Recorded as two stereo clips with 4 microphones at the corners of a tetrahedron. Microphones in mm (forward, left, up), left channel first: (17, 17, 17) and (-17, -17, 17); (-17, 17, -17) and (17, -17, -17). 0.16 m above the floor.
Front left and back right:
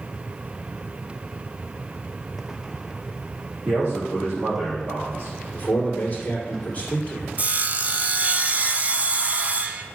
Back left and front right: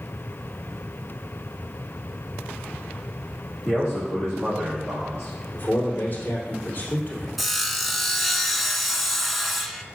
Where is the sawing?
135° right, 0.6 m.